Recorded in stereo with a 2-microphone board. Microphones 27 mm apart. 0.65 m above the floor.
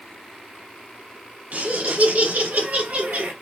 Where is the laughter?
60° right (ahead or behind), 4 m; by 3.3 s 75° right (ahead or behind), 4 m.